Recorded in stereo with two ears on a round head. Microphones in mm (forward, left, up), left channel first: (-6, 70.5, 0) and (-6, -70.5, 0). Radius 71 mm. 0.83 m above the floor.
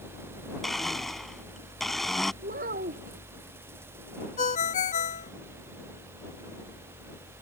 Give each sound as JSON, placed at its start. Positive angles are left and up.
{"t": 0.6, "sound": "a blender", "side_deg": 0}
{"t": 2.4, "sound": "a child speaking", "side_deg": -60}
{"t": 4.4, "sound": "a ringtone", "side_deg": 45}